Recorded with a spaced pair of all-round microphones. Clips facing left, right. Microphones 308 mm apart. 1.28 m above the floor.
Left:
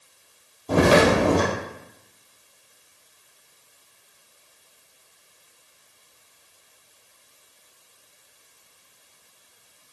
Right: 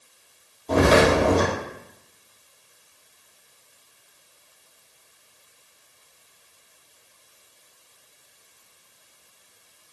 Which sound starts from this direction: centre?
Footsteps, at 0.7 s.